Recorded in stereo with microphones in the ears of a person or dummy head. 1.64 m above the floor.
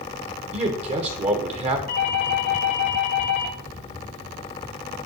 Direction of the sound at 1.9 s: 50° left (ahead or behind).